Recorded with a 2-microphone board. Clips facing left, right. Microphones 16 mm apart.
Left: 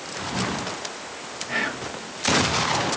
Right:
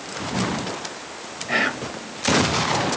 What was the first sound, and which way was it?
Whispering, 40° right (ahead or behind).